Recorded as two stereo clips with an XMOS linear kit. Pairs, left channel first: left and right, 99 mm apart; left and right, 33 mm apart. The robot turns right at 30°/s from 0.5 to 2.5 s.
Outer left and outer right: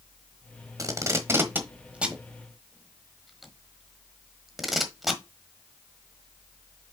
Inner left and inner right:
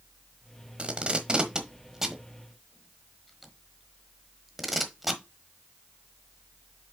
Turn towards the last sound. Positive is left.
turn(degrees=0)  # may be behind; listen again after turning